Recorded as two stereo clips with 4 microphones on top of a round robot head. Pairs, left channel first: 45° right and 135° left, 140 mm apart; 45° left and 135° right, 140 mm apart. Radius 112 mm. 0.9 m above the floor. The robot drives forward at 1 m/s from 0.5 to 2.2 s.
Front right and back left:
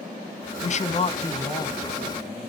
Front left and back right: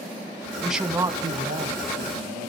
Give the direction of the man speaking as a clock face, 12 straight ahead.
2 o'clock.